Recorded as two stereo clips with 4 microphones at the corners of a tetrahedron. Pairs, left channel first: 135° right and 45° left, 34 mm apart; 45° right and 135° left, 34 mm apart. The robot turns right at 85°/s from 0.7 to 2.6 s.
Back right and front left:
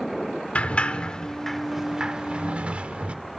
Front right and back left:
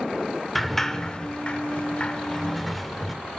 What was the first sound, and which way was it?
A sliding door, 120° right.